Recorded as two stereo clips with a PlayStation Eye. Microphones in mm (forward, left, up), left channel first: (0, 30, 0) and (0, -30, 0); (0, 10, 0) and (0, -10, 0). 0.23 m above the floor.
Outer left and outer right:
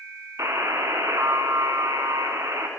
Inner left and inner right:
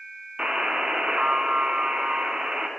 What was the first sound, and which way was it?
A buzzer, 60° right (ahead or behind).